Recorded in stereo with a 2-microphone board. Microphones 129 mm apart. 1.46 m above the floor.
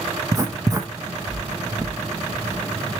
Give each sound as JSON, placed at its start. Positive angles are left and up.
{"t": 0.3, "sound": "writing", "side_deg": -25, "distance_m": 1.0}